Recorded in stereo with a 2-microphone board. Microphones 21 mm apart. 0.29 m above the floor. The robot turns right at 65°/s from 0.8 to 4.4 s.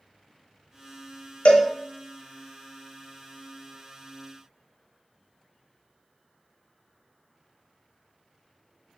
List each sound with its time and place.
1.4 s a cowbell: 80° left, 0.6 m; by 1.7 s 65° left (ahead or behind), 0.6 m